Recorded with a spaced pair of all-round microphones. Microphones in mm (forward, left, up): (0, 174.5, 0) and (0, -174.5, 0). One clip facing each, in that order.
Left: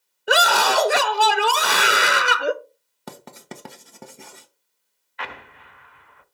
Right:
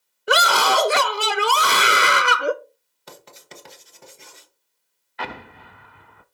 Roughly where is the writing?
Left.